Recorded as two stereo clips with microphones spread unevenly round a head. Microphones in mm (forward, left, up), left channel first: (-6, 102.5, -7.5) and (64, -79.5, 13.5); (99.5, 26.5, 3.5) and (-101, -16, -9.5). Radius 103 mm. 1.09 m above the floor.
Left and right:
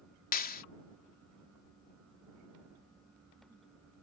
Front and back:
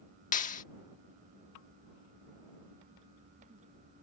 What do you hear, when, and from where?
0.3 s a clap: 65° left